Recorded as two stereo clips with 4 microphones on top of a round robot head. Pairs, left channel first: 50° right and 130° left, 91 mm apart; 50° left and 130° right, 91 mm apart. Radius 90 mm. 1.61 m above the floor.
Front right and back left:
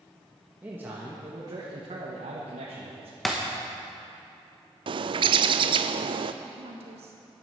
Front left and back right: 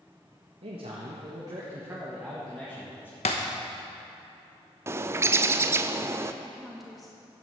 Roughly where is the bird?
Behind.